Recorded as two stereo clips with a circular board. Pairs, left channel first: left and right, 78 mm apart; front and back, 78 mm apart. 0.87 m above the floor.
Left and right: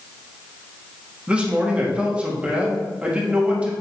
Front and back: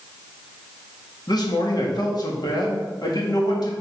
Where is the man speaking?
20° right, 1.8 m.